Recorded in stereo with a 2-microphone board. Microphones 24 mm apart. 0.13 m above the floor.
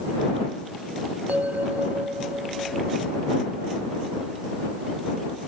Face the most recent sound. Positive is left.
turn(degrees=-90)